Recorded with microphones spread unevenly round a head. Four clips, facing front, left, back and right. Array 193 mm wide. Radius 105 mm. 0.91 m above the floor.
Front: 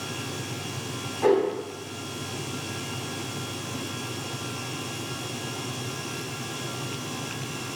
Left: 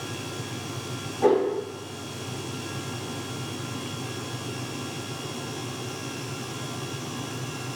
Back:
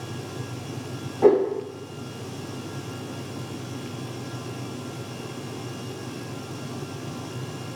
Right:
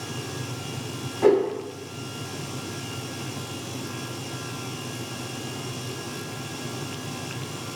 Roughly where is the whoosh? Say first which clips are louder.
Right 2 dB, back 4 dB; behind.